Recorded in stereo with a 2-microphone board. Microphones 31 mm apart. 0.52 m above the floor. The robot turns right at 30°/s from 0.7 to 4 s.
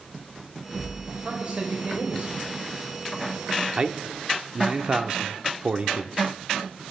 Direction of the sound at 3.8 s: 35° right (ahead or behind).